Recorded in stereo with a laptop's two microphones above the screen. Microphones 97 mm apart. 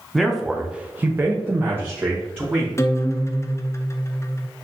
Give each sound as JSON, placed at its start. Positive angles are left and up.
{"t": 0.1, "sound": "a man speaking", "side_deg": 0, "distance_m": 0.8}
{"t": 2.8, "sound": "a guitar", "side_deg": 30, "distance_m": 0.5}